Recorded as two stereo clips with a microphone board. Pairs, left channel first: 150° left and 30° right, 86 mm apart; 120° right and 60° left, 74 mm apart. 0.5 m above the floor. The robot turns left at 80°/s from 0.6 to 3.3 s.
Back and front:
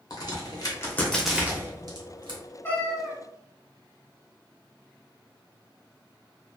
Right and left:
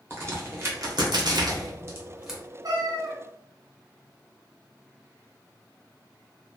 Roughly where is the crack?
Behind left.